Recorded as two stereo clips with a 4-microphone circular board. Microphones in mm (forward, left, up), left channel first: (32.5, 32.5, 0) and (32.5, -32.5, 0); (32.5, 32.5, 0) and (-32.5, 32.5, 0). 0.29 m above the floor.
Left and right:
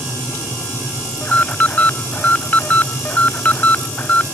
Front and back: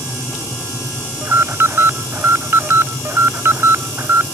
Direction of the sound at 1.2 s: 145° left.